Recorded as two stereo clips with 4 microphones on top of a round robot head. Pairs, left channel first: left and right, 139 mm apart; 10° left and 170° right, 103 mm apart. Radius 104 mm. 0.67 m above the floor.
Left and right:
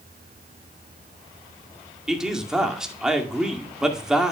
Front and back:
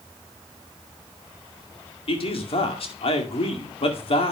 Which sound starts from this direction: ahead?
A man speaking, at 2.1 s.